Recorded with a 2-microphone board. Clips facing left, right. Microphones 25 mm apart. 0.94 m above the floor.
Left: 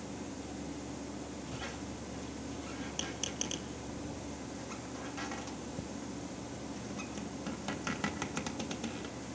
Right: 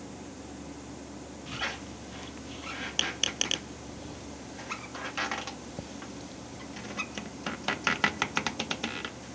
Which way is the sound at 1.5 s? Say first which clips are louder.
Right 6 dB; 50° right (ahead or behind).